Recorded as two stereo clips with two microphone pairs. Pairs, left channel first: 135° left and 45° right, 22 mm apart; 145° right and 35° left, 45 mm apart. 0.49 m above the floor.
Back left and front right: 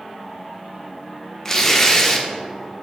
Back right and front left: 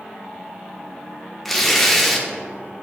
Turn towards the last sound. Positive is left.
turn(degrees=140)